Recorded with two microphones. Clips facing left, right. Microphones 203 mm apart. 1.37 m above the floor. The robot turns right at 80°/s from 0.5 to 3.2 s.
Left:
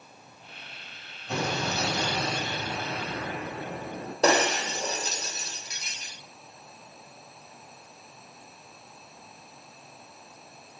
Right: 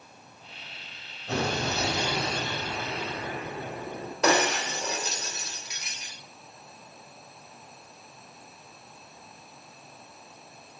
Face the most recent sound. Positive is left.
turn(degrees=35)  # may be behind; listen again after turning